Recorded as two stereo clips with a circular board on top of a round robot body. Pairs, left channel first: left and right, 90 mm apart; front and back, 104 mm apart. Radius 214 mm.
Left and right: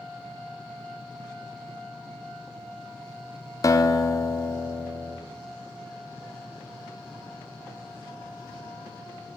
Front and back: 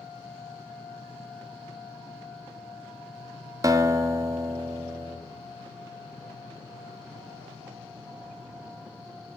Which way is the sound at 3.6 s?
130° left.